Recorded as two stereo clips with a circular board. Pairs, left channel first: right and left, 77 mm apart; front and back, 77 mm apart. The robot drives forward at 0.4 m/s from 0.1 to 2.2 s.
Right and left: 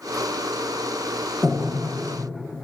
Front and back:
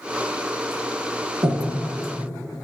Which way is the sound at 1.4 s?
Straight behind.